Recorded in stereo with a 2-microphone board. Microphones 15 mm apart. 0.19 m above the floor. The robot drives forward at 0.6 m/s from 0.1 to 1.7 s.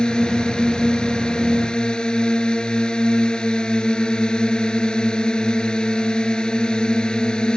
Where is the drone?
65° left (ahead or behind); by 7.6 s 60° left (ahead or behind).